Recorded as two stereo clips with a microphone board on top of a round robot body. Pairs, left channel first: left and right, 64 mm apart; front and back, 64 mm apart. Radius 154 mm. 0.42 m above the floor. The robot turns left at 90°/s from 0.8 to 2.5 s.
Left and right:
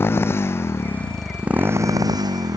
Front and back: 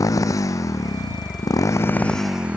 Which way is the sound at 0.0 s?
35° left.